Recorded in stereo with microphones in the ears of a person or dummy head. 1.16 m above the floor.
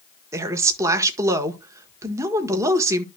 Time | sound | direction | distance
0.3 | a woman speaking | 20° right (ahead or behind) | 1.2 m